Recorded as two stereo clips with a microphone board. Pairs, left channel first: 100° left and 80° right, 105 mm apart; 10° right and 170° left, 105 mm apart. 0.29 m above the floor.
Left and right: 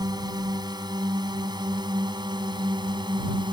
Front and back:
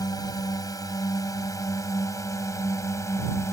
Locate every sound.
0.0 s a drone: 50° right; by 3.5 s 65° right